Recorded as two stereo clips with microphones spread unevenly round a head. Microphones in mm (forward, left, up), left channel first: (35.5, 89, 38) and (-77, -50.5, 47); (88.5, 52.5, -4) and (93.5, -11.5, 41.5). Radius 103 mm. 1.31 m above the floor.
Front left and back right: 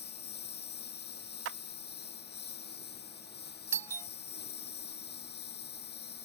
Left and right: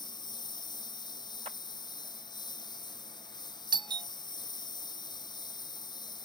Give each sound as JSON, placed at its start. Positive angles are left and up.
{"t": 0.0, "sound": "a lawn mower", "azimuth_deg": 85}
{"t": 1.4, "sound": "a clap", "azimuth_deg": -140}
{"t": 3.7, "sound": "a doorbell", "azimuth_deg": -50}